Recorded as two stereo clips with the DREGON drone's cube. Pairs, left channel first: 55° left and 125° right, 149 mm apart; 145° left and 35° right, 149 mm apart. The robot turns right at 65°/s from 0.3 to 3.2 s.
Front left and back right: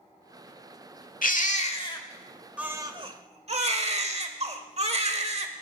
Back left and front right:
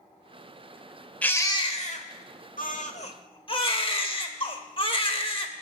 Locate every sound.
1.2 s a baby crying: 65° left, 1.1 m; by 5.5 s 165° right, 1.1 m